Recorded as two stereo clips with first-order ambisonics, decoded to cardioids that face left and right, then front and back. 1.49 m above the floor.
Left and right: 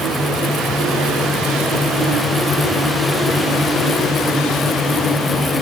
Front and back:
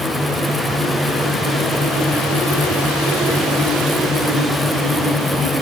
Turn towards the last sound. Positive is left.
No sound to turn to.